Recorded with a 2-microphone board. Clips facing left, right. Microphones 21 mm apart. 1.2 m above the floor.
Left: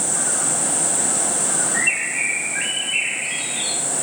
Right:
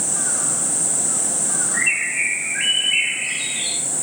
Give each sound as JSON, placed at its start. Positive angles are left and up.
{"t": 1.7, "sound": "a bird", "side_deg": -35, "distance_m": 1.8}